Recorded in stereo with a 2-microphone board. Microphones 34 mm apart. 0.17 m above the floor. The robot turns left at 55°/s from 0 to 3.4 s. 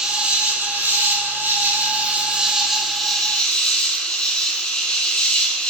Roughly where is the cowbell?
No cowbell in this recording.